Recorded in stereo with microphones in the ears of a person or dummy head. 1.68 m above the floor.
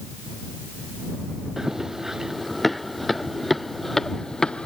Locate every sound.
1.6 s running footsteps: 5° right (ahead or behind); by 4.7 s centre (ahead or behind)